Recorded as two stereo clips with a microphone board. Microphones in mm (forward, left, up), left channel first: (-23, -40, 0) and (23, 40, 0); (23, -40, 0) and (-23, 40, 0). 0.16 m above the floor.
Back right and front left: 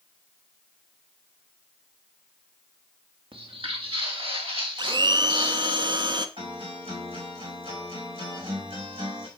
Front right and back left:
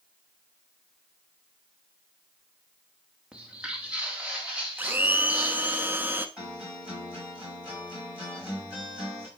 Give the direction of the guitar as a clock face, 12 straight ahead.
11 o'clock.